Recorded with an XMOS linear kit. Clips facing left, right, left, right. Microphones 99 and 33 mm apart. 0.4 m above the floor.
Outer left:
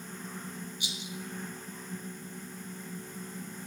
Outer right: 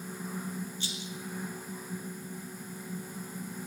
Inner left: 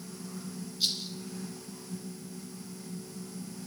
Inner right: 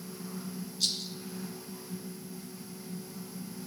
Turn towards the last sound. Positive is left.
turn(degrees=15)  # may be behind; listen again after turning